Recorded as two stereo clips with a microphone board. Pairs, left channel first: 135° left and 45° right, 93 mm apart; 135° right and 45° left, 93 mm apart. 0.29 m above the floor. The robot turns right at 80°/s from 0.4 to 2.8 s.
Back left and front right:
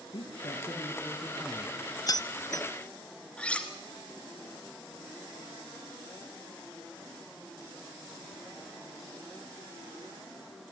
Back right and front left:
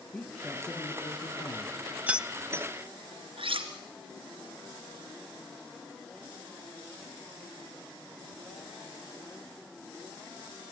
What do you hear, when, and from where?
0.1 s a man speaking: 145° left, 3 m; by 1.8 s 105° right, 3 m
2.1 s keys jangling: 110° left, 0.8 m; by 2.7 s 160° left, 0.8 m
3.4 s cutlery clinking: 55° left, 2.5 m